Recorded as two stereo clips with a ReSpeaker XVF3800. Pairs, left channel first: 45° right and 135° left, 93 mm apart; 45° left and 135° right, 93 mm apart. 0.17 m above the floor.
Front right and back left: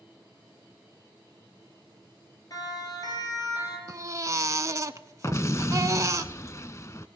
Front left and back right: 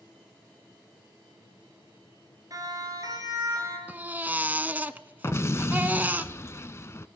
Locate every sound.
2.5 s a siren: 85° right, 3 m
3.9 s a baby crying: 165° left, 0.5 m
5.2 s an explosion: straight ahead, 0.5 m